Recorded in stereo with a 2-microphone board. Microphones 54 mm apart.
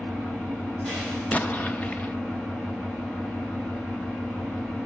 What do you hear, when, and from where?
0.0 s an engine running: 10° left (ahead or behind), 6 m
1.3 s an explosion: 25° left (ahead or behind), 0.8 m